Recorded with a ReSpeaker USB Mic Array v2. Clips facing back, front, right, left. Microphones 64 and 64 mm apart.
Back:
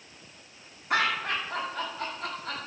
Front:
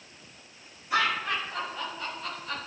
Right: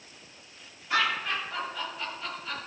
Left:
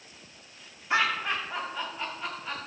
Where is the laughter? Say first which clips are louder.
Even, left 1 dB; 160° left, 5 m; by 2.6 s 170° left, 5 m.